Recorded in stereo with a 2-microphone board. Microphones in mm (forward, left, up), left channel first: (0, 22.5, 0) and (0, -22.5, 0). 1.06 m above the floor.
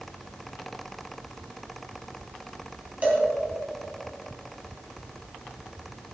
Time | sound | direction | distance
3.0 | a cowbell | 30° right (ahead or behind) | 2 m